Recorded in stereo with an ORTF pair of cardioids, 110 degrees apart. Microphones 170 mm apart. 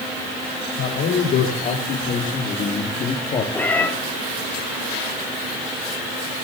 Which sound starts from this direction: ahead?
A cat meowing, at 3.5 s.